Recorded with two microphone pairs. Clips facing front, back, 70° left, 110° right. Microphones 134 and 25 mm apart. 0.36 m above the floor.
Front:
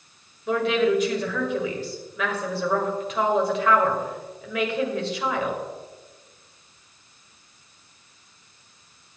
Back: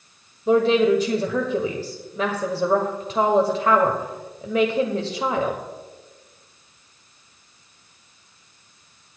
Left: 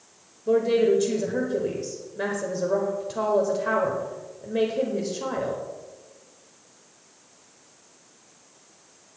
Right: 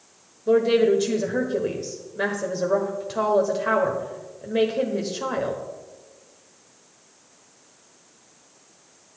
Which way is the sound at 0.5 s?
165° right.